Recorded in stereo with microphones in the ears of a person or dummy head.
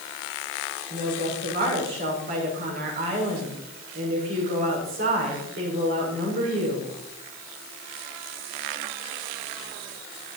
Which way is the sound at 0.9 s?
45° right (ahead or behind).